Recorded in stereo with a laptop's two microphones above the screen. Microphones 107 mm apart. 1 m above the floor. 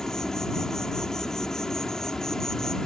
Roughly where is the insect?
Centre.